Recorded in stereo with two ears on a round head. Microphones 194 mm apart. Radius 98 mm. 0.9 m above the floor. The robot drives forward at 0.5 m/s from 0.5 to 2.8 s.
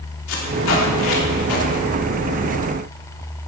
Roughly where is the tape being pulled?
Left.